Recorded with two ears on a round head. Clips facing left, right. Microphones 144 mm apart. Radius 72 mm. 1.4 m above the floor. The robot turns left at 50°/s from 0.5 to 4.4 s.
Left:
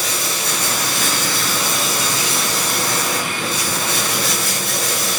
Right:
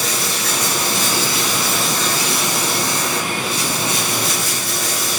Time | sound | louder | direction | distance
0.0 | running water | right 1 dB | 115° right | 6.5 m